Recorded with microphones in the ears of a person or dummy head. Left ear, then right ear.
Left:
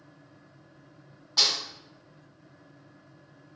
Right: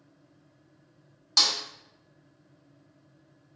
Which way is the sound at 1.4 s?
70° right (ahead or behind).